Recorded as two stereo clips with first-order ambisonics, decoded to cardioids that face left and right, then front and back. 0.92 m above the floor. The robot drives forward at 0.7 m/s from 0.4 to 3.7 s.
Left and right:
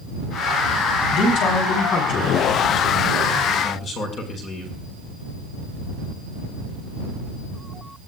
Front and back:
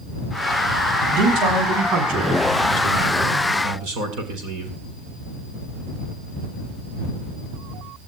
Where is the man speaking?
140° left, 5.5 m; by 4.7 s 150° left, 7 m.